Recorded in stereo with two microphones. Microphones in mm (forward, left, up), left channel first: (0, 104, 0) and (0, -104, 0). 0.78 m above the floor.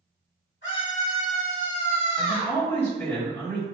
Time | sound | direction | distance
0.6 | a scream | 65° left (ahead or behind) | 2.0 m
2.2 | a man speaking | 10° left (ahead or behind) | 2.0 m